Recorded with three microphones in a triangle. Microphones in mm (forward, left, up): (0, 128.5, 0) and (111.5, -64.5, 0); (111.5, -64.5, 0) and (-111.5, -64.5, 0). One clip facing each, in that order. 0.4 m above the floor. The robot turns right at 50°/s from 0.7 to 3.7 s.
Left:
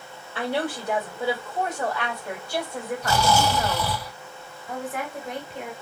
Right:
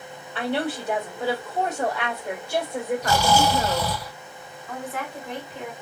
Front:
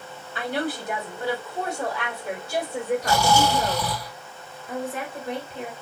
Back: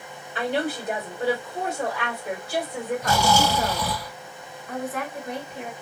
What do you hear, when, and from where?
0.3 s a woman speaking: straight behind, 1.6 m; by 3.9 s 30° right, 1.6 m
3.0 s snoring: 130° right, 1.7 m; by 4.1 s 100° right, 1.7 m
4.7 s a woman speaking: 50° left, 1.3 m